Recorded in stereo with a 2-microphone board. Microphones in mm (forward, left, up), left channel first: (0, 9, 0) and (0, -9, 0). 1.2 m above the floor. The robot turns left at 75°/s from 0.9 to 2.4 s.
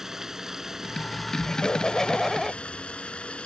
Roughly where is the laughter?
Left.